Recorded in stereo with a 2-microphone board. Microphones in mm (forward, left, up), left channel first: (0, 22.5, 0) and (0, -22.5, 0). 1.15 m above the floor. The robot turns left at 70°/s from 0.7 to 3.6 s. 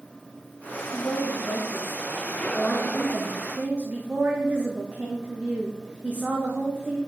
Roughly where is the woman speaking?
Behind left.